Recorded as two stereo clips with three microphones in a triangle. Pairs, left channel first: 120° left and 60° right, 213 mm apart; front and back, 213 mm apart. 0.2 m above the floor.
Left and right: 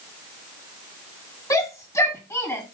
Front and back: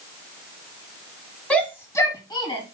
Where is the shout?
75° left, 1.6 m; by 2.6 s 50° left, 1.8 m.